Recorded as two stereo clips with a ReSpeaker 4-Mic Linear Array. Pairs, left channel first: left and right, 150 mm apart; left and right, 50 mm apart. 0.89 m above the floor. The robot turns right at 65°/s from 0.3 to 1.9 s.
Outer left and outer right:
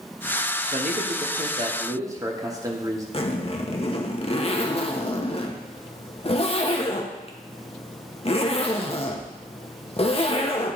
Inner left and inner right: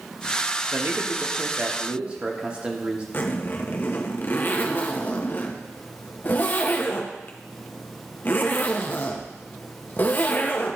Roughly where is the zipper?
Left.